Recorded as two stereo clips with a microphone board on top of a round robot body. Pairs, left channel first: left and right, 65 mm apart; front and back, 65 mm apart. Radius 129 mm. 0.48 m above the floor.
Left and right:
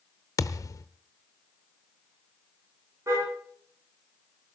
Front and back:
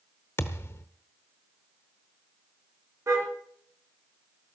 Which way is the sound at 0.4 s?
55° left.